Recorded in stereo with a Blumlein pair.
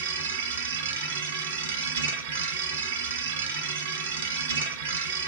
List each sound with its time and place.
0.0 s a machine running: 65° right, 2.0 m